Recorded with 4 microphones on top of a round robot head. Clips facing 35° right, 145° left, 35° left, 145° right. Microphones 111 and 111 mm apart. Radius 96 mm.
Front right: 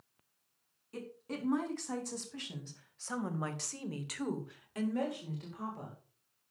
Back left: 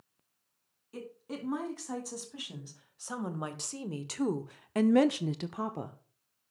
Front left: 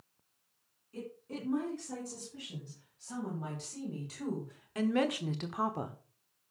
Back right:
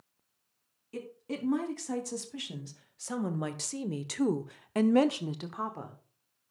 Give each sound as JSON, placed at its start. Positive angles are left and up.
{"t": 0.9, "sound": "a woman speaking", "azimuth_deg": -130, "distance_m": 4.0}